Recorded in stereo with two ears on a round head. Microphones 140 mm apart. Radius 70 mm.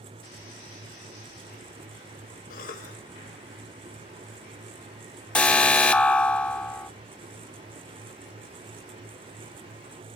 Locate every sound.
2.5 s a cough: 60° left (ahead or behind), 2.5 m
5.3 s an alarm: 5° left (ahead or behind), 0.9 m